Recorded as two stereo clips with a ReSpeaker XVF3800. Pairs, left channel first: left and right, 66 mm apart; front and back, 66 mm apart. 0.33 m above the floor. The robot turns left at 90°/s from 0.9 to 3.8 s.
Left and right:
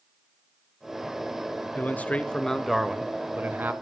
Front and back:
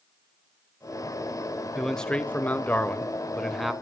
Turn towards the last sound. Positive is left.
turn(degrees=-100)